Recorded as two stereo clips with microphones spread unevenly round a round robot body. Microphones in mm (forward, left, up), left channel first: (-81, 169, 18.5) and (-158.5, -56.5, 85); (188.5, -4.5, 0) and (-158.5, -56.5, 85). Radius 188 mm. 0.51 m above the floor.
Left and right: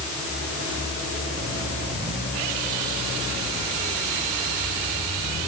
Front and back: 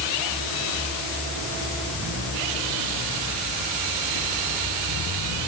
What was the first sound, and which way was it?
Only background noise.